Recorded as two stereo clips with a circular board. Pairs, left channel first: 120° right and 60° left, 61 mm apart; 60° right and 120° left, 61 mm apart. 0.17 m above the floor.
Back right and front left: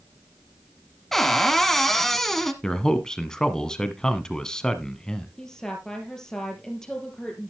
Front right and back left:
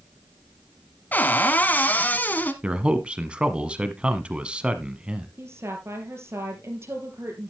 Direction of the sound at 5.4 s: 160° left.